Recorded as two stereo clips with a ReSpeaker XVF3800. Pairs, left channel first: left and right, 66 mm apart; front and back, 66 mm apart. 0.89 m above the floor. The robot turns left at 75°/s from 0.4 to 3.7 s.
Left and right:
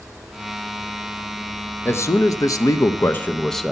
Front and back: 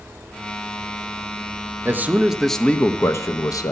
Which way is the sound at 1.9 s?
135° left.